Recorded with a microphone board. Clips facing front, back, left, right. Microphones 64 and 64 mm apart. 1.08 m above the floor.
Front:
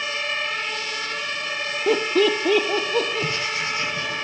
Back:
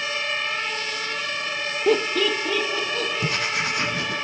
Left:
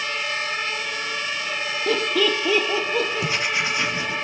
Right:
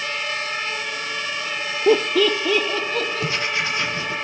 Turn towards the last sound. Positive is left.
turn(degrees=165)